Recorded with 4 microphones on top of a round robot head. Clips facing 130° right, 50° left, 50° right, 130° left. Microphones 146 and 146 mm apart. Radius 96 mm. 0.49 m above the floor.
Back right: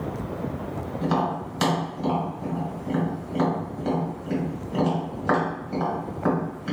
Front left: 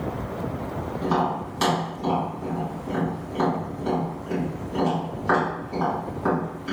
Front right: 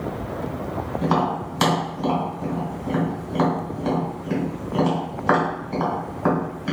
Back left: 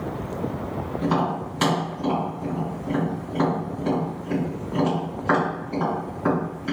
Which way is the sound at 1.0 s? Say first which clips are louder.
Front left 1 dB, front right 2 dB; 100° right.